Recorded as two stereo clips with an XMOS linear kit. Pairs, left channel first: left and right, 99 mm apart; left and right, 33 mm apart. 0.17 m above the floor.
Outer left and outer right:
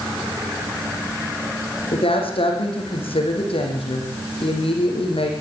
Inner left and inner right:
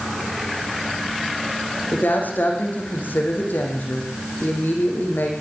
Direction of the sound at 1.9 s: 65° left (ahead or behind).